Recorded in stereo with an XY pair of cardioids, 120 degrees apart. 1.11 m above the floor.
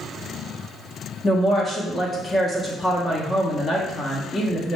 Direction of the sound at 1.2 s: 20° left.